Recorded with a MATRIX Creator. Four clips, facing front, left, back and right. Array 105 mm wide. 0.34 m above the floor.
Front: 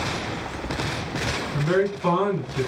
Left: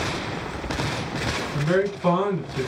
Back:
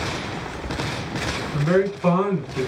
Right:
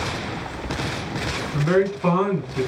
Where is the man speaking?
125° right, 1.3 m.